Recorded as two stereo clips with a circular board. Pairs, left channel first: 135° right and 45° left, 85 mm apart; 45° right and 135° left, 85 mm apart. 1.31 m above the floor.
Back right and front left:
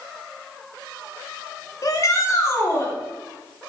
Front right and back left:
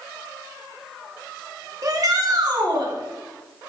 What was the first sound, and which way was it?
A shout, straight behind.